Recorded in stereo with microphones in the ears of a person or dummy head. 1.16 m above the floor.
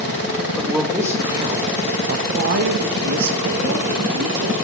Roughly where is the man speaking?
Centre.